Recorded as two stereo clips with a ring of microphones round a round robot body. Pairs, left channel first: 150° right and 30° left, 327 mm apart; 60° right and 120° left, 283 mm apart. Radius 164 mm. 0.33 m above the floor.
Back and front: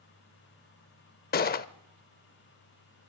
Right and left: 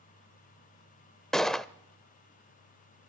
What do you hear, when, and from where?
1.3 s a gunshot: 145° right, 0.5 m